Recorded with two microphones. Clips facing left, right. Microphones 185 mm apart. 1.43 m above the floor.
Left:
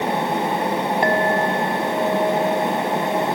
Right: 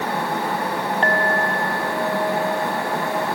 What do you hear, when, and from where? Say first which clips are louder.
1.0 s a clink: left 2 dB; 15° left (ahead or behind)